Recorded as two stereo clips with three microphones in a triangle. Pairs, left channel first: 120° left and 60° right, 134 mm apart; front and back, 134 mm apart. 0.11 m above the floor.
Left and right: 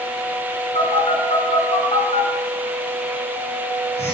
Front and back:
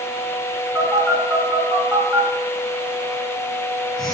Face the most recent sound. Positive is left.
turn(degrees=90)